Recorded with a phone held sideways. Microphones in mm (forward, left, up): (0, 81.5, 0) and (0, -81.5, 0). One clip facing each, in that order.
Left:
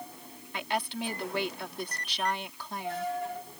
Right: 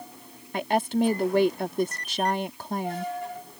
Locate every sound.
0.5 s a woman speaking: 45° right (ahead or behind)